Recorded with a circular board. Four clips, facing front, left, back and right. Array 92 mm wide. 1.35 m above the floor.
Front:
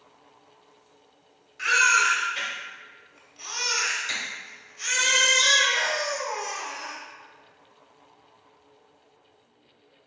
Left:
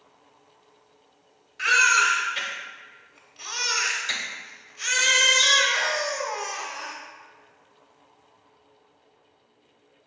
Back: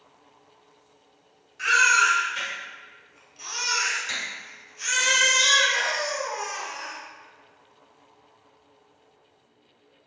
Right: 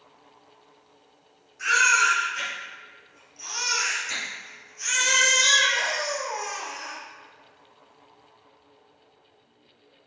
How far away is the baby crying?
About 1.2 m.